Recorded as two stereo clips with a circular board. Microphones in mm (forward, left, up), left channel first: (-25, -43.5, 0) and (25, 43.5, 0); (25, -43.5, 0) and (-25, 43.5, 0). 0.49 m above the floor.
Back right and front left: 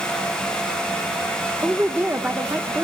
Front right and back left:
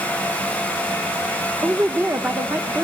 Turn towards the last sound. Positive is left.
turn(degrees=100)